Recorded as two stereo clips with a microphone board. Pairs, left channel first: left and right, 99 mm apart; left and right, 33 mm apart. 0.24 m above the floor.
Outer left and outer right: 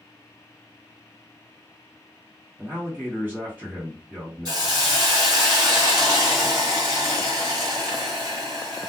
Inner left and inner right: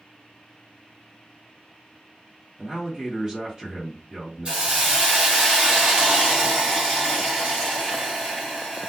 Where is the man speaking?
20° right (ahead or behind), 1.7 m.